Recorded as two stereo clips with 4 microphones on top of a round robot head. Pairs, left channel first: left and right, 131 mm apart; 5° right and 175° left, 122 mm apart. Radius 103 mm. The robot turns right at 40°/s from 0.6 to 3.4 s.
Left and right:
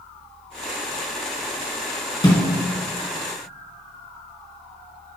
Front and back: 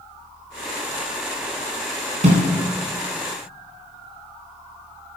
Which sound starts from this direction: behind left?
A snare drum, at 2.2 s.